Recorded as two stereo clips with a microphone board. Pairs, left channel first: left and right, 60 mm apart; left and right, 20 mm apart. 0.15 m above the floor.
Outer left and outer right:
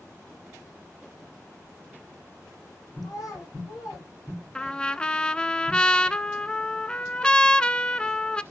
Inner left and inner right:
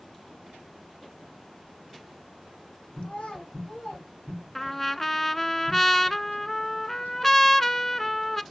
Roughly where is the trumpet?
Centre.